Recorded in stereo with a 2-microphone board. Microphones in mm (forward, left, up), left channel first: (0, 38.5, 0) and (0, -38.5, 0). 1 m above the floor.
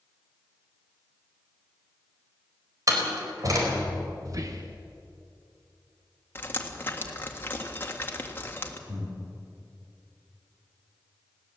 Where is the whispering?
45° right (ahead or behind), 0.8 m.